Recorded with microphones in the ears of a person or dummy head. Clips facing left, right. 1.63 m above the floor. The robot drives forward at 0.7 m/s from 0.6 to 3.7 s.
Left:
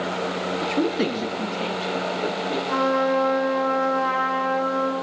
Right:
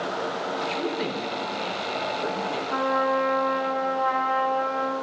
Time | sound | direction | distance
0.6 | a man speaking | 55° left (ahead or behind) | 1.0 m
2.7 | a trumpet | 75° left (ahead or behind) | 2.5 m